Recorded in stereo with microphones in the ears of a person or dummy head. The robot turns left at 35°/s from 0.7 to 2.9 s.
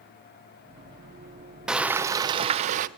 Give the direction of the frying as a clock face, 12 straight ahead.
12 o'clock.